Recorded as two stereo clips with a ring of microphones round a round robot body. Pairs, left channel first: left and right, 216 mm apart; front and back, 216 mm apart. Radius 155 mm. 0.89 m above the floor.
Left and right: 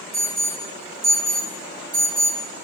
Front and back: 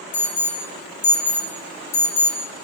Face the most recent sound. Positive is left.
turn(degrees=-15)